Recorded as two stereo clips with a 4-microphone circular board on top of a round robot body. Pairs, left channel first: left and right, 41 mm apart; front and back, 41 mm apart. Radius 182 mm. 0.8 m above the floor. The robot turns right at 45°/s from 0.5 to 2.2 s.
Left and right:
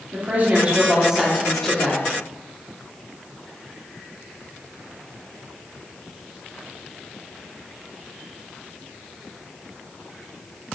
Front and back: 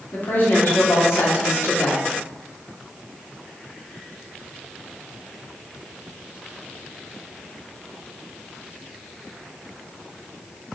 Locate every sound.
0.1 s a woman speaking: 40° right, 2.5 m; by 2.0 s 30° left, 2.5 m